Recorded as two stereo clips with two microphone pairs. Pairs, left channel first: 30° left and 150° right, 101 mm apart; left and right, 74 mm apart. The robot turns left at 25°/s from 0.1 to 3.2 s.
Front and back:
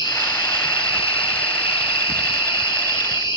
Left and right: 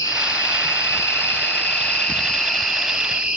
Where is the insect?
65° left, 1.2 m; by 3.4 s 10° right, 1.2 m.